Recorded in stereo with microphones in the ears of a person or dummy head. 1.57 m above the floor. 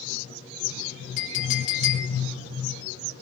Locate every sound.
1.2 s a clink: 55° left (ahead or behind), 3.5 m